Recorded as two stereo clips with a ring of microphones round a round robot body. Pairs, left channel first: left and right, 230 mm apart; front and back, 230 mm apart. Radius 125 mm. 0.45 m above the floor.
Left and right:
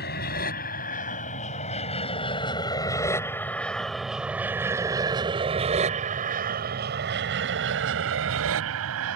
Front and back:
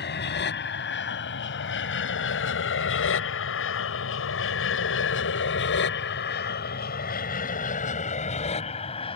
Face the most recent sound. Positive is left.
turn(degrees=-70)